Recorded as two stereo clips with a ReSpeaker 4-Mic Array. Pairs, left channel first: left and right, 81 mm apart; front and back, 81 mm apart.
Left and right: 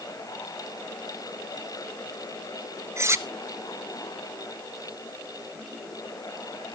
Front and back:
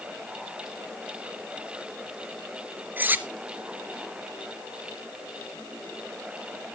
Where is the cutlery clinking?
125° right, 0.9 m.